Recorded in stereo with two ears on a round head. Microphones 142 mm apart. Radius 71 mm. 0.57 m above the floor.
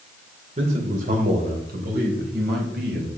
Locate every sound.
0.6 s a man speaking: 45° right (ahead or behind), 1.9 m; by 3.1 s 70° right (ahead or behind), 4 m